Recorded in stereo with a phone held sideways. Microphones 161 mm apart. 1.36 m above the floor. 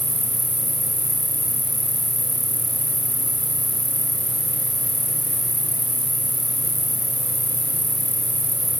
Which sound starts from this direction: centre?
An insect, at 0.0 s.